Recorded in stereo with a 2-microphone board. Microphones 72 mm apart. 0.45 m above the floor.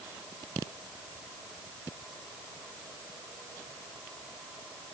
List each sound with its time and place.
Only background noise.